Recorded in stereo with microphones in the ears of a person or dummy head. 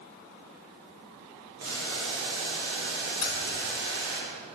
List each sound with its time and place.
1.6 s boiling: 65° right (ahead or behind), 2 m
3.2 s keys jangling: 25° left (ahead or behind), 1.1 m